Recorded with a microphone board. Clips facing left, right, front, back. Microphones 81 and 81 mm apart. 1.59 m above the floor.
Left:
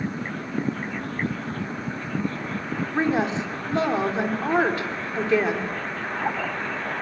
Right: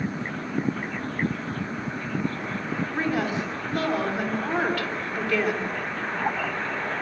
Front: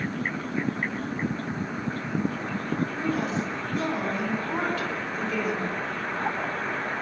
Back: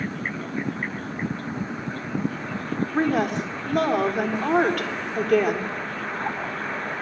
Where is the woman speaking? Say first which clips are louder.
Left 4 dB, back 5 dB; 155° left, 3.5 m.